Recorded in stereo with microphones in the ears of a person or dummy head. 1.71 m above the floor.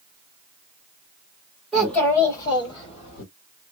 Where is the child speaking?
Centre (ahead or behind), 1.8 m; by 3.2 s 45° left (ahead or behind), 2.0 m.